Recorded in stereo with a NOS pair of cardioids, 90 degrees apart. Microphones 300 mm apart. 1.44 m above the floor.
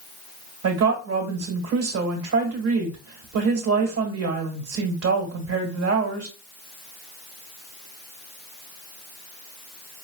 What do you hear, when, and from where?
0.6 s a woman speaking: 55° right, 1.6 m